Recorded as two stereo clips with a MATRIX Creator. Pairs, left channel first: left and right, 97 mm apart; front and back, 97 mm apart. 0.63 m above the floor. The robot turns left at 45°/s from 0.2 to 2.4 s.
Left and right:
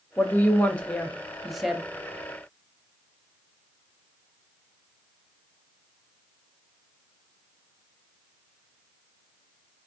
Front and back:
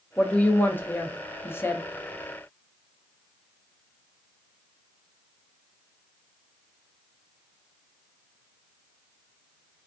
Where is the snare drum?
No snare drum in this recording.